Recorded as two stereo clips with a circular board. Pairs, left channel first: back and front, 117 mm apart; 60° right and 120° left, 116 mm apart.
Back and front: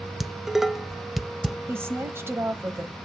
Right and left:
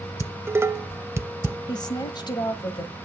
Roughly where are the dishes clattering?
Left.